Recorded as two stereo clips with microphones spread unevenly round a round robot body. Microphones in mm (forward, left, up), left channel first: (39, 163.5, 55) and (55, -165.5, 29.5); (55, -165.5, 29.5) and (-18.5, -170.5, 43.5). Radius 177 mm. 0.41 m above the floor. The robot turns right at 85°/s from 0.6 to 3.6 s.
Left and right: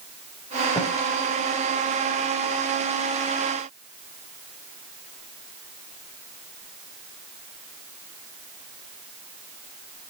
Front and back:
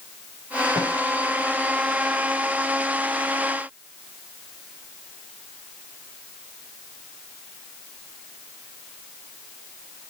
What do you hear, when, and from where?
0.8 s a snare drum: 175° left, 4.5 m; by 0.9 s 170° right, 4.5 m